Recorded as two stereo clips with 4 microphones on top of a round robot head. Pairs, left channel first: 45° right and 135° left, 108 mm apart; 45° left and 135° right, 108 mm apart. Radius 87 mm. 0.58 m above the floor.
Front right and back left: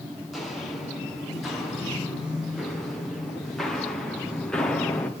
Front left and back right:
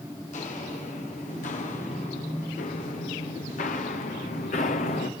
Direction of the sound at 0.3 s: 45° left.